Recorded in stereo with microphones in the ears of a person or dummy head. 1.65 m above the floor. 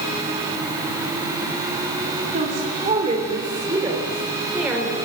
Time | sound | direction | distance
2.3 | a woman speaking | 40° right (ahead or behind) | 4 m